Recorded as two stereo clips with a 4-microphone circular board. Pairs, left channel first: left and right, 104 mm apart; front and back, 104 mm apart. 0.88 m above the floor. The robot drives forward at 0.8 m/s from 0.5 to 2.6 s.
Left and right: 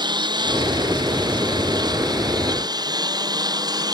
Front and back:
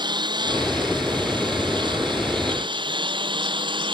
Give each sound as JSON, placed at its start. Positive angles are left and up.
{"t": 0.0, "sound": "a lawn mower", "azimuth_deg": -135}